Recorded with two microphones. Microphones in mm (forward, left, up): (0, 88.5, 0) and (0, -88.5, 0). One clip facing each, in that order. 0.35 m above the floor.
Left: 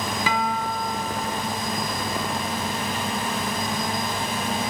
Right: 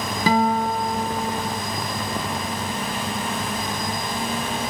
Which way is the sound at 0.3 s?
40° right (ahead or behind).